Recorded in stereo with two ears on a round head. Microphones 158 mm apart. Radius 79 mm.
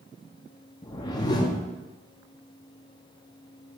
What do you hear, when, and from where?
0.8 s a whoosh: 25° left (ahead or behind), 0.6 m